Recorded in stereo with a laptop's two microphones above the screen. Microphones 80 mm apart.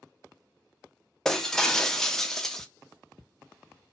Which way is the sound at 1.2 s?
5° left (ahead or behind).